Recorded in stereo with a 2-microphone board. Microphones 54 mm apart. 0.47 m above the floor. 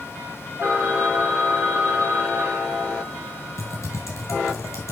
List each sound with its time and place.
0.6 s a phone ringing: 50° right (ahead or behind), 3.5 m
3.6 s typing on a keyboard: 70° left (ahead or behind), 2.5 m